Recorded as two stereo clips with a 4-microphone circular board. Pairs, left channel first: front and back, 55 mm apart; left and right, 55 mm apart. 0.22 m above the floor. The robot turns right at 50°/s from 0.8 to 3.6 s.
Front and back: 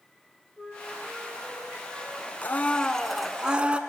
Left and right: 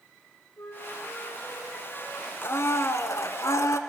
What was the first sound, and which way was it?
A flute, 65° left.